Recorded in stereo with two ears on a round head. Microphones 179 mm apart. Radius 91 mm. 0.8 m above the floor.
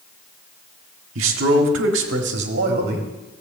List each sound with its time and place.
1.1 s a man speaking: 70° right (ahead or behind), 1.8 m; by 3.1 s 50° right (ahead or behind), 2 m